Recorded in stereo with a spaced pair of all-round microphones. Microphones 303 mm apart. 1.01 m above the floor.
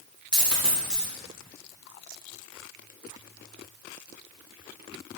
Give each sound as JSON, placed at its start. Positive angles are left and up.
{"t": 0.3, "sound": "a dropped coin", "side_deg": -5, "distance_m": 1.2}